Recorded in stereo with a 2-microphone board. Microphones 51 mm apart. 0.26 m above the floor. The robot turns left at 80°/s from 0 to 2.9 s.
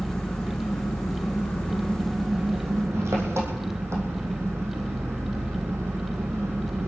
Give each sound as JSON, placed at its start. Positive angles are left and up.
{"t": 0.0, "sound": "an engine running", "azimuth_deg": 170, "distance_m": 4.0}